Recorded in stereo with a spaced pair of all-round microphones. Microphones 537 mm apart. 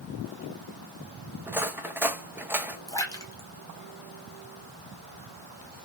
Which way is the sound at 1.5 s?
5° right (ahead or behind).